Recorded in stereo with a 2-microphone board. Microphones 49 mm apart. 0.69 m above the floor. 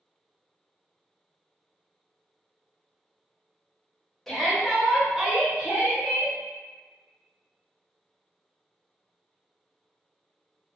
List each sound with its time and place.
4.3 s a shout: 5° left (ahead or behind), 1.0 m; by 6.3 s 40° right (ahead or behind), 0.7 m